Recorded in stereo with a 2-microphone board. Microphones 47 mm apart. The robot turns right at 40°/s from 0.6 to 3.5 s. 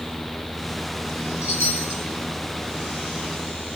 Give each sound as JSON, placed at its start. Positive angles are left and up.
{"t": 1.4, "sound": "a chime", "side_deg": 70, "distance_m": 2.5}